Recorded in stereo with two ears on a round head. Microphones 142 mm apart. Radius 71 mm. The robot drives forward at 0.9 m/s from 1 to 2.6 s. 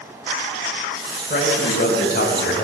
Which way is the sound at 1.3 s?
45° left (ahead or behind).